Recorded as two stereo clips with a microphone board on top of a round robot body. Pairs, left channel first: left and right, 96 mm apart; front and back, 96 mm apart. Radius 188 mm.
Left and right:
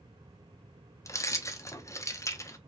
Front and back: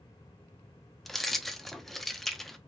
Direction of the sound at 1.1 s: 85° left.